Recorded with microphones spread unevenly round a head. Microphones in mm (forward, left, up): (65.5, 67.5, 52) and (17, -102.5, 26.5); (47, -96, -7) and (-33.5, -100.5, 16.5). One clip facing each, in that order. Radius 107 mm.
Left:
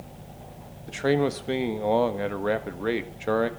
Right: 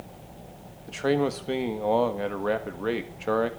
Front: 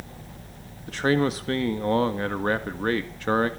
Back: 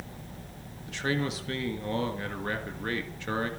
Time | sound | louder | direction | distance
0.9 | a man speaking | left 1 dB, front 8 dB | 15° right | 1.5 m